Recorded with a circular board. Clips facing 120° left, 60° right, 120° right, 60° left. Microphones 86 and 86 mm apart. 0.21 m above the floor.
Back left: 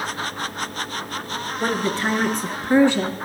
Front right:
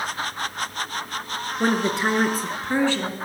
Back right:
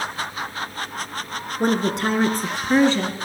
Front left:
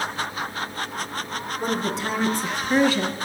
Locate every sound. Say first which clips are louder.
1.6 s a woman speaking: front right 2 dB, back right 6 dB; 125° right, 3 m; by 3.1 s 170° left, 1.7 m